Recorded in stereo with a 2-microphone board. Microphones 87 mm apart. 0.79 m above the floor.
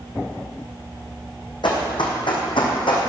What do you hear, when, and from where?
1.6 s running footsteps: 65° left (ahead or behind), 2.5 m; by 3.1 s 75° left (ahead or behind), 2.5 m